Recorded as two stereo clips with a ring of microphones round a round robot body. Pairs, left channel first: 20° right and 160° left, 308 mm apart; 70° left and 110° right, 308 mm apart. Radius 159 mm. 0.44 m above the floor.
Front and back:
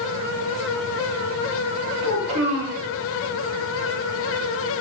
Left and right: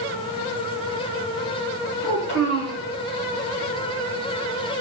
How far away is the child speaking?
About 2.5 m.